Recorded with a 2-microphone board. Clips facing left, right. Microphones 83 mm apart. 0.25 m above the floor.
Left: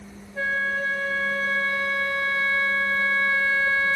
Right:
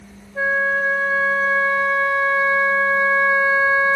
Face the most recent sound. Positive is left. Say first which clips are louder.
# right 6 dB
turn(degrees=-20)  # may be behind; listen again after turning